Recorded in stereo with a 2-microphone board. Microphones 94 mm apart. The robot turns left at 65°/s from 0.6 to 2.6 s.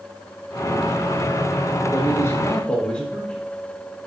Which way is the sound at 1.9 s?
65° left.